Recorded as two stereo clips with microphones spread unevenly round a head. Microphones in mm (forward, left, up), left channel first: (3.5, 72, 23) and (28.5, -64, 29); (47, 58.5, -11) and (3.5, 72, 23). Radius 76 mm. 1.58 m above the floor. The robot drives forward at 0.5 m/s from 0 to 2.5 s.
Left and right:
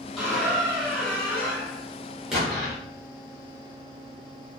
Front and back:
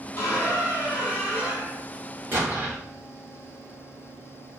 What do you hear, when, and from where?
0.2 s a squeak: 5° left, 1.4 m; by 1.8 s 170° left, 1.4 m
2.3 s an explosion: 165° right, 1.0 m